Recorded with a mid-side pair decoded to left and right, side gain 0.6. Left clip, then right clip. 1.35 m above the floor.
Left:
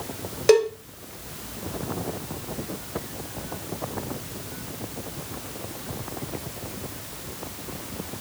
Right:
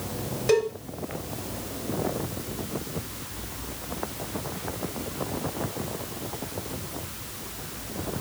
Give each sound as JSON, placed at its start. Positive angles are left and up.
{"t": 0.5, "sound": "a cowbell", "azimuth_deg": 45, "distance_m": 2.5}